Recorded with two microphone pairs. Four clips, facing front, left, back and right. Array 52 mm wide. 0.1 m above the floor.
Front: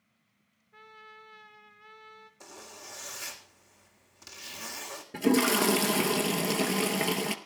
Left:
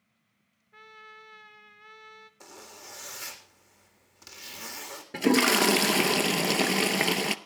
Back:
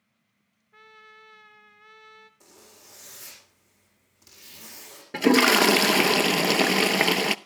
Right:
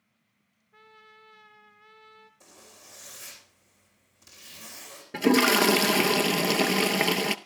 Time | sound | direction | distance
0.7 | a trumpet | 125° left | 1.0 m
2.4 | a zipper | 65° left | 3.5 m
5.1 | a toilet flushing | 175° left | 0.5 m